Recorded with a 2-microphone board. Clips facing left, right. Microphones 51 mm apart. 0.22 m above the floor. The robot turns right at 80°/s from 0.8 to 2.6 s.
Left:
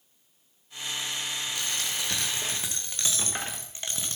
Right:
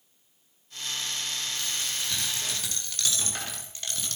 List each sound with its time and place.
1.6 s a dropped coin: 75° left, 3 m; by 4.2 s 160° left, 3 m